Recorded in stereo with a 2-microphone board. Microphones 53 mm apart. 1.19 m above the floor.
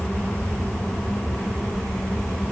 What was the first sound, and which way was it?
Only background noise.